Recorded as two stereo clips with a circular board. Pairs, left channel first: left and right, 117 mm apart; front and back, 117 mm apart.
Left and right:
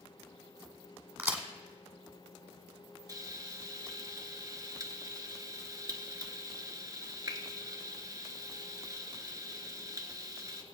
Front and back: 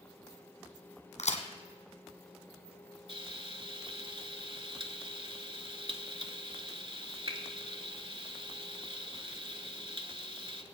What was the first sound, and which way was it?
A crack, 15° right.